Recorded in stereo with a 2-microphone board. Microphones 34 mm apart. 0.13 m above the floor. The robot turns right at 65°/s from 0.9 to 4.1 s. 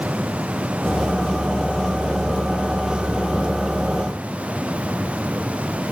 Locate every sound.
Only background noise.